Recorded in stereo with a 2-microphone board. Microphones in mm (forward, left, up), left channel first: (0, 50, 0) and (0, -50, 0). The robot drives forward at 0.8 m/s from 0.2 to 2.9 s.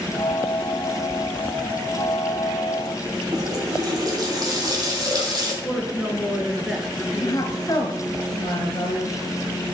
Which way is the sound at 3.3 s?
40° right (ahead or behind).